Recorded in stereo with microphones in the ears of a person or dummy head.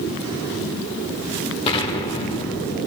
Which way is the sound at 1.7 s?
30° left (ahead or behind).